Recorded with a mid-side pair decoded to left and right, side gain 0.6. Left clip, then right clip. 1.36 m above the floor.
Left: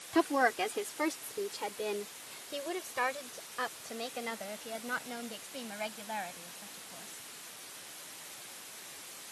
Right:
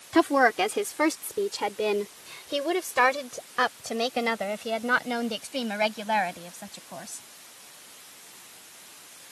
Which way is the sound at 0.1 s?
40° right.